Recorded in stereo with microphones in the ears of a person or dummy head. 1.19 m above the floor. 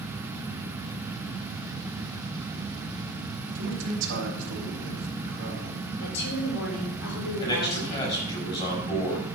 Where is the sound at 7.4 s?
20° left (ahead or behind), 5 m.